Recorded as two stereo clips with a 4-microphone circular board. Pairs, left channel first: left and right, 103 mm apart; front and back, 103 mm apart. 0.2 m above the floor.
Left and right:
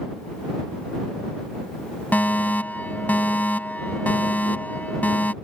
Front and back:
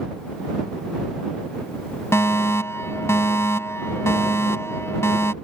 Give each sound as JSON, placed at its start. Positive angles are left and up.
{"t": 2.1, "sound": "a fire alarm", "azimuth_deg": 30}